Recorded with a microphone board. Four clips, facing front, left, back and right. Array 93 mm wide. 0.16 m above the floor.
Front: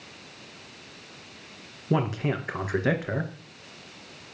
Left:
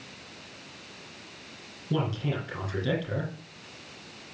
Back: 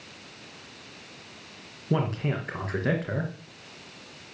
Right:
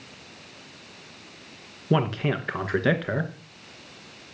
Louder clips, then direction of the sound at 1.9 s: Right 6 dB, front 1 dB; 75° right.